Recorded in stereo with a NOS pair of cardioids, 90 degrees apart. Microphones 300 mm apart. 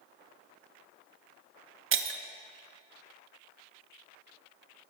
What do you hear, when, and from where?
1.9 s breaking glass: 45° right, 0.9 m